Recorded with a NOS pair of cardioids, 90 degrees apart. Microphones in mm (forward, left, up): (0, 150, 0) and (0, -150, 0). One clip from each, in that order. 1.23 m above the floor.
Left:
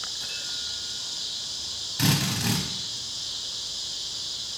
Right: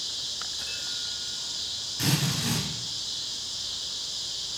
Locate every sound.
2.0 s a drill: 55° left, 6 m